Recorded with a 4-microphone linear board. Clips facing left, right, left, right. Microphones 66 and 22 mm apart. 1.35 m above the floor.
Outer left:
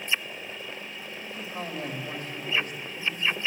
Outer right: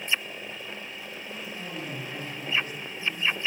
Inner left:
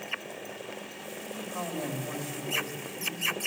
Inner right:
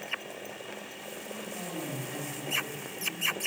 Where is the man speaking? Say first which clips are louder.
Outer left 4 dB, inner left 4 dB; 85° left, 3.5 m.